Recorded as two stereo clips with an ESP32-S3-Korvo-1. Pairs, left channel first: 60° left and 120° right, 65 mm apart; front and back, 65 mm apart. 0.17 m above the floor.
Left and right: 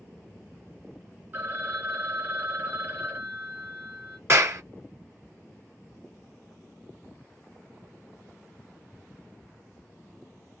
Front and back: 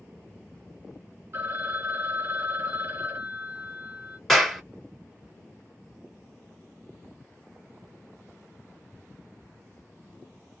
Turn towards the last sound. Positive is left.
turn(degrees=-85)